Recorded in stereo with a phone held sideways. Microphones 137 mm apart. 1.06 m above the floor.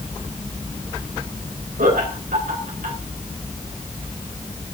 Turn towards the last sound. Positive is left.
turn(degrees=-80)